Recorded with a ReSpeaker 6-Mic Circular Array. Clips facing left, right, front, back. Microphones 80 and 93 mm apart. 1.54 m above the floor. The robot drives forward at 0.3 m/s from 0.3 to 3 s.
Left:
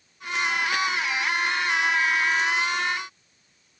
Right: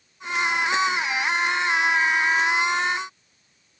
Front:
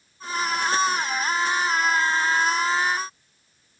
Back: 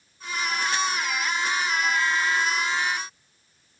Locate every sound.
Only background noise.